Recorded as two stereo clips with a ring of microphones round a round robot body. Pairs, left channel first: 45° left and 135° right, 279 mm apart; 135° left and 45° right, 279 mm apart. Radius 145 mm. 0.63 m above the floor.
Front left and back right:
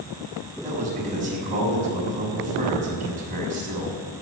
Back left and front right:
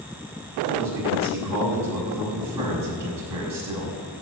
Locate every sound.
0.6 s a man speaking: 70° right, 6 m